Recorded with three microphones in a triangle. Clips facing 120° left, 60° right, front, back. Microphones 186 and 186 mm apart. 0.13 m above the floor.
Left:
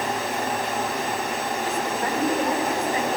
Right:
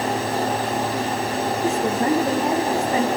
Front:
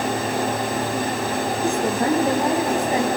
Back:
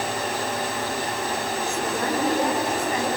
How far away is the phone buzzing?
No phone buzzing in this recording.